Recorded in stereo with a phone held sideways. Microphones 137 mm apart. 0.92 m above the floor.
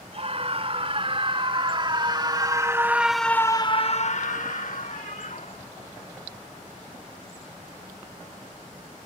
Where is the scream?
45° right (ahead or behind); by 5.7 s 70° left (ahead or behind).